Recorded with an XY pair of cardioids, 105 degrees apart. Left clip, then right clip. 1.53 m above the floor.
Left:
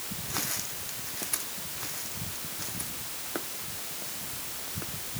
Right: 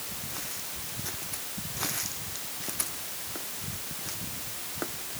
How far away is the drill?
No drill in this recording.